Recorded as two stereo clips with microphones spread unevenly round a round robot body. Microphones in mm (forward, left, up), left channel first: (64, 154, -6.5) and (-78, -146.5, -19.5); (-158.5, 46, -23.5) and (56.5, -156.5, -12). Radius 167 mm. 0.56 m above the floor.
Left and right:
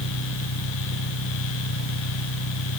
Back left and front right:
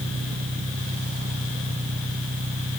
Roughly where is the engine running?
Ahead left.